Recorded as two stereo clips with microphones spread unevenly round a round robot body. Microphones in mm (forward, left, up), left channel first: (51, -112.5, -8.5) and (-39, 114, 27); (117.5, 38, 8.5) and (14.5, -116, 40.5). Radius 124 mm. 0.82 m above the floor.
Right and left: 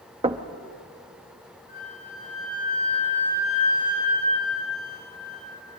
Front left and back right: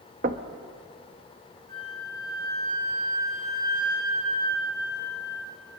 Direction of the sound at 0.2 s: Straight behind.